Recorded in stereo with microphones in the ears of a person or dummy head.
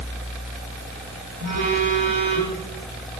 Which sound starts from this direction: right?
A phone buzzing, at 1.4 s.